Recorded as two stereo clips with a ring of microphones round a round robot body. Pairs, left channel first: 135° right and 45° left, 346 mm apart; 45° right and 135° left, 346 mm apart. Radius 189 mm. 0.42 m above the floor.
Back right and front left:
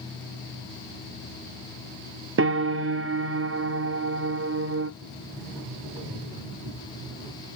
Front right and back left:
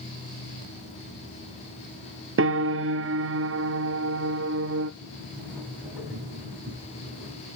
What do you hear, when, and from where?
2.4 s a piano: 90° left, 0.6 m
5.0 s a sliding door: 45° left, 5 m